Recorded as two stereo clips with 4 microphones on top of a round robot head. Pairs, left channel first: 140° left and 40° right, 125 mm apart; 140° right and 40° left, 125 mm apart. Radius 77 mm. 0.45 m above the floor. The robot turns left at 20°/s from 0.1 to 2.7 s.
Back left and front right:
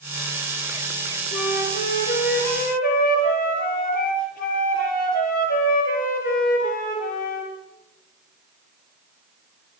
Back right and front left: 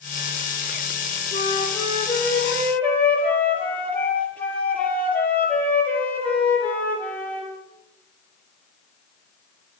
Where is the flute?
170° left, 5 m; by 7.5 s 145° left, 5 m.